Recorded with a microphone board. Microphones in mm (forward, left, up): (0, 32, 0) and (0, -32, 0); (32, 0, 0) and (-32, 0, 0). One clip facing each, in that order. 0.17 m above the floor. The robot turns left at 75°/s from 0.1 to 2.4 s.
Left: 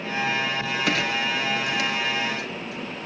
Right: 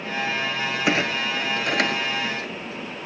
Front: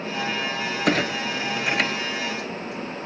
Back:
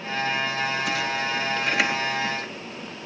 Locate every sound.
0.9 s a clunk: 25° right, 0.6 m; by 3.1 s 140° right, 0.6 m